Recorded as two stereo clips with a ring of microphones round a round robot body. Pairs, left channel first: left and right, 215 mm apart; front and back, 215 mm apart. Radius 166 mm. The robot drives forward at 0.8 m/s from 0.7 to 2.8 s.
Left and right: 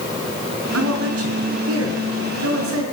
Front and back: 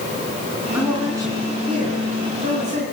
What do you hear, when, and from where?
0.7 s a man speaking: 95° right, 4.5 m; by 2.8 s 115° right, 5 m